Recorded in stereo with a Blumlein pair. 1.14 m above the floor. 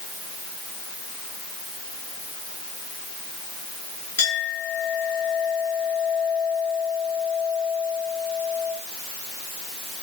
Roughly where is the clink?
Ahead left.